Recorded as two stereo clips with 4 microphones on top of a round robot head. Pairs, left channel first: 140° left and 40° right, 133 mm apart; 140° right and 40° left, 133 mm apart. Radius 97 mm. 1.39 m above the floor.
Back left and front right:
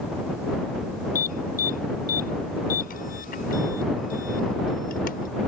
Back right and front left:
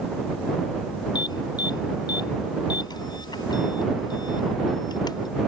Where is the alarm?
160° left.